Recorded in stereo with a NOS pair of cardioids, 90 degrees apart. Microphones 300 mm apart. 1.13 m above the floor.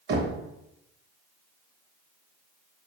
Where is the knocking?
35° right, 0.7 m.